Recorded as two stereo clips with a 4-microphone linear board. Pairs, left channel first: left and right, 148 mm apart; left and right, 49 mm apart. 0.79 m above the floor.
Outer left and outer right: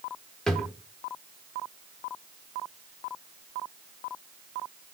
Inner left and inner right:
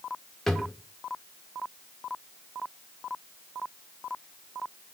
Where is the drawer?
5° left (ahead or behind), 0.8 m.